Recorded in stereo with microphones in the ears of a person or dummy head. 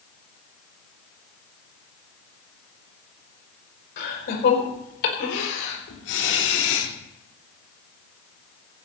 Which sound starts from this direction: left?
Laughter, at 4.0 s.